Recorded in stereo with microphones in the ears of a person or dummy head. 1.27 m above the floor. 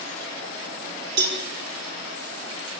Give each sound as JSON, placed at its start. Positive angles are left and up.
{"t": 1.2, "sound": "a cowbell", "side_deg": -75, "distance_m": 4.5}